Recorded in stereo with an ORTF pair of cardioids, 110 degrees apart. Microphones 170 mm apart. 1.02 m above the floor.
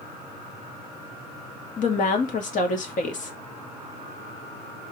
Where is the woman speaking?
50° left, 2 m.